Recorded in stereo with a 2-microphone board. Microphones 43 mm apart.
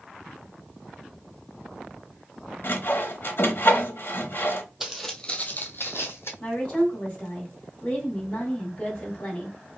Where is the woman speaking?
30° left (ahead or behind), 1.8 m.